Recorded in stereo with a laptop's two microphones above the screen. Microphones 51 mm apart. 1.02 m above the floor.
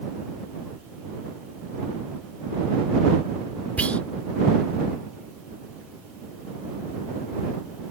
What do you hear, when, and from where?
3.8 s whispering: 30° left (ahead or behind)